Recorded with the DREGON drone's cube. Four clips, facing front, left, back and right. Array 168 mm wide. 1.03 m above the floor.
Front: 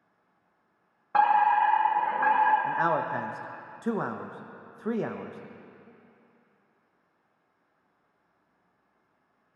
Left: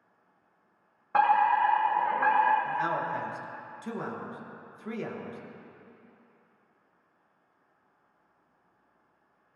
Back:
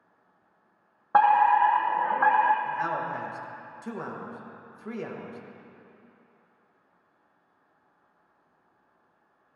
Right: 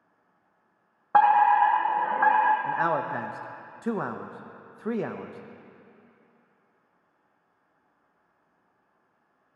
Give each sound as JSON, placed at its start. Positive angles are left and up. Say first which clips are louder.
{"t": 1.1, "sound": "a fire alarm", "louder": "right 5 dB, back 2 dB", "azimuth_deg": -135, "distance_m": 1.4}
{"t": 2.6, "sound": "a man speaking", "louder": "right 4 dB, front 3 dB", "azimuth_deg": -50, "distance_m": 1.0}